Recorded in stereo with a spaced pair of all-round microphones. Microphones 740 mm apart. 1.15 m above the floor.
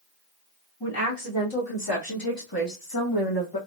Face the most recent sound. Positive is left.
turn(degrees=30)  # may be behind; listen again after turning